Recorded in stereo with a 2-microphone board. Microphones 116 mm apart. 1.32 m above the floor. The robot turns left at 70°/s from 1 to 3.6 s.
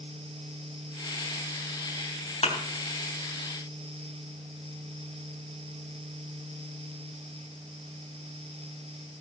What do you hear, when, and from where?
2.4 s a thud: 55° left (ahead or behind), 3 m; by 2.6 s 65° left (ahead or behind), 3 m